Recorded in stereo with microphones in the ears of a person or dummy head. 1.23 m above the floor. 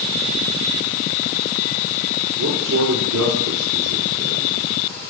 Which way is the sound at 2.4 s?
70° right (ahead or behind).